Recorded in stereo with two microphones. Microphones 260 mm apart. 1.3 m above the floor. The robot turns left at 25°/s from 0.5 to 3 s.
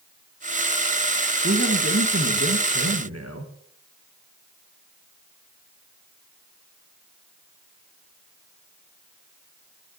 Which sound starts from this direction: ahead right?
A man speaking, at 1.4 s.